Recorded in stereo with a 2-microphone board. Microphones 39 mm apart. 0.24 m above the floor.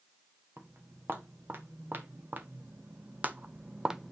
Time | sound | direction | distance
0.6 | footsteps | 65° right (ahead or behind) | 2.5 m